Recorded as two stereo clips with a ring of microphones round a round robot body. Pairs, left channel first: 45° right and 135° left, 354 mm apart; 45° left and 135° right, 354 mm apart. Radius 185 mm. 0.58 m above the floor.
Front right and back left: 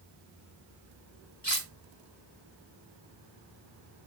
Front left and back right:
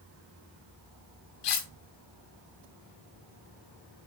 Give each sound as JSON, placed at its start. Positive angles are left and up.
{"t": 1.4, "sound": "cutlery clinking", "azimuth_deg": 20, "distance_m": 3.0}